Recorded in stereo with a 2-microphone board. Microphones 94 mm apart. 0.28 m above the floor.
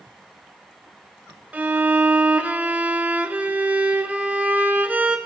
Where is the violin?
15° right (ahead or behind), 1.4 m.